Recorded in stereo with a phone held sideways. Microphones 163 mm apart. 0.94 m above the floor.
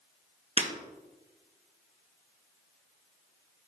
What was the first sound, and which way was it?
Breaking glass, 40° right (ahead or behind).